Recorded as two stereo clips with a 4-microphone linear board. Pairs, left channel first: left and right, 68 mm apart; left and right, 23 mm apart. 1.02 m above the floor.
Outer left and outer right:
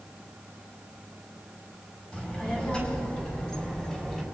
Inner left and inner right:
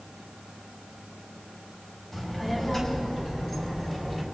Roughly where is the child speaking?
Centre.